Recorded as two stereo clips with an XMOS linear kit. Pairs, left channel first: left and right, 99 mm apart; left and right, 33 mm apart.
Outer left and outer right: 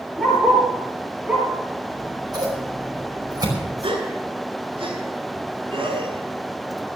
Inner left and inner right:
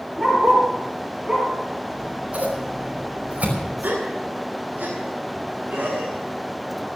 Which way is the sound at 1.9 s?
45° right (ahead or behind).